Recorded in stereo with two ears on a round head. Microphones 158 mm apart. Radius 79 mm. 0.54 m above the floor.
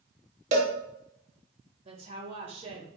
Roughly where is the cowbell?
Right.